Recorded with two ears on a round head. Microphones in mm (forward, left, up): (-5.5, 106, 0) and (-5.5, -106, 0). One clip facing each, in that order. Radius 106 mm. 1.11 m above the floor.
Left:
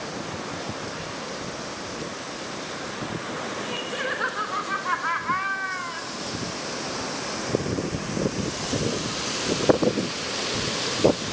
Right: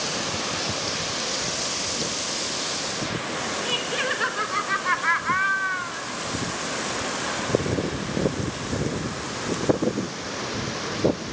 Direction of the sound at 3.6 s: 45° right (ahead or behind).